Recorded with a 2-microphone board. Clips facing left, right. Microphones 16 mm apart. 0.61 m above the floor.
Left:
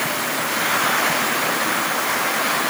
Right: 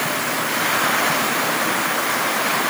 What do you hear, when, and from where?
Only background noise.